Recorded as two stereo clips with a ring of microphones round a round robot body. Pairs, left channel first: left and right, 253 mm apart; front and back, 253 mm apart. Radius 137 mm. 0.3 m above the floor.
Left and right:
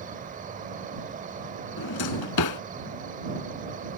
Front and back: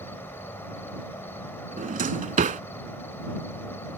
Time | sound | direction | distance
0.0 | an insect | 75° right | ?
1.8 | a drawer | 120° left | ?